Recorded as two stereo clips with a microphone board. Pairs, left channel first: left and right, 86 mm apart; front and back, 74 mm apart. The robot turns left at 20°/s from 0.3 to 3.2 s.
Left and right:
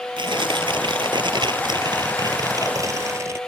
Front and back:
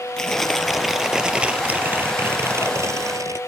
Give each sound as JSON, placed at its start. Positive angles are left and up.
{"t": 0.2, "sound": "tearing paper", "azimuth_deg": -80}